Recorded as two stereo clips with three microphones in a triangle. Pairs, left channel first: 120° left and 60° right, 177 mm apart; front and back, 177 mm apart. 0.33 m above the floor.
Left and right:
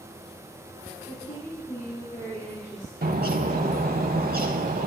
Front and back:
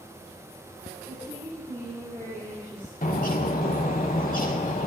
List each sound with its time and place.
1.1 s a woman speaking: 70° left, 4.5 m; by 2.9 s 75° left, 3.5 m
3.0 s a bird: 35° right, 0.7 m